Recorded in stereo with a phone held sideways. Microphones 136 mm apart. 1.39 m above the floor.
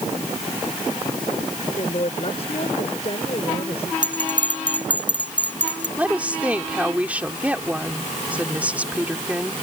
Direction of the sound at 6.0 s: 10° right (ahead or behind).